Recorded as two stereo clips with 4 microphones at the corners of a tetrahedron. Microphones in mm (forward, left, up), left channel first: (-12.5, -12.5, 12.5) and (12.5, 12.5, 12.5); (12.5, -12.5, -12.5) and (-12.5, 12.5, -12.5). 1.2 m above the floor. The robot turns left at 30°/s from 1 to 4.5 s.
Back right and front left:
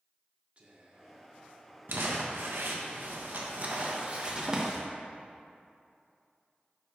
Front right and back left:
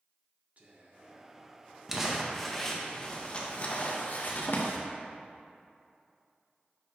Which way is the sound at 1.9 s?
60° left.